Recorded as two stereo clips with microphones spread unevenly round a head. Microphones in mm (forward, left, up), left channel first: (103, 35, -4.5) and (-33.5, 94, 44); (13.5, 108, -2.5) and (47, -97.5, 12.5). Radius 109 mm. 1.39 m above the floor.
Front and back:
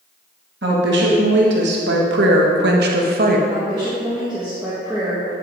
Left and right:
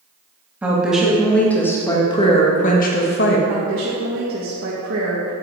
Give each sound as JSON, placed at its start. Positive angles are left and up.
{"t": 0.6, "sound": "a woman speaking", "azimuth_deg": -165, "distance_m": 2.5}
{"t": 3.5, "sound": "a woman speaking", "azimuth_deg": -115, "distance_m": 2.0}